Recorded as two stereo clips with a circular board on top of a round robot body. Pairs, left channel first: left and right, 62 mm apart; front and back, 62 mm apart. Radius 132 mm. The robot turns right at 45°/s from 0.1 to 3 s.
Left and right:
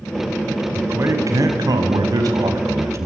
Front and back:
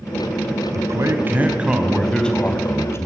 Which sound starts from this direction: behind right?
A man speaking, at 0.7 s.